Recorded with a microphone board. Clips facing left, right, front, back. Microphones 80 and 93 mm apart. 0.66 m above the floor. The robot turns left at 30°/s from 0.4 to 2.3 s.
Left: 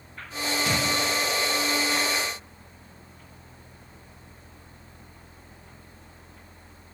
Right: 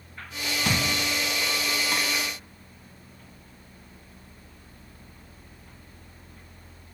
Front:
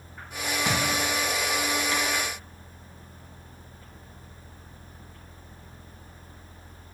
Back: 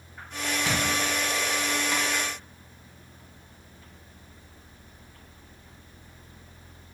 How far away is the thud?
About 1.5 m.